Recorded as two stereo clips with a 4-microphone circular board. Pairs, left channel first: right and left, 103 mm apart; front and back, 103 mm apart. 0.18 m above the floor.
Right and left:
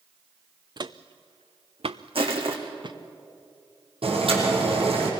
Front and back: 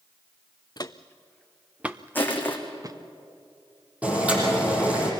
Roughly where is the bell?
I don't hear a bell.